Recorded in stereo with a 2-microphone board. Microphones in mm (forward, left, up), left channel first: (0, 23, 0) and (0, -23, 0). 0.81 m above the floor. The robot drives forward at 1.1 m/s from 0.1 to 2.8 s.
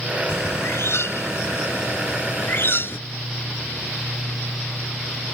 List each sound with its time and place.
0.3 s a bird: 65° left (ahead or behind); by 3.0 s 50° left (ahead or behind)